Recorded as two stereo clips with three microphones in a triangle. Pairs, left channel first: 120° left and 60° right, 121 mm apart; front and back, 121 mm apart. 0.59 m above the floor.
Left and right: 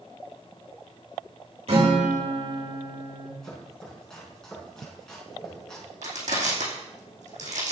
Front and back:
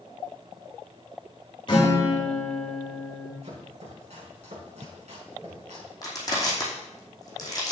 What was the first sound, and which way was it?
A guitar, 45° right.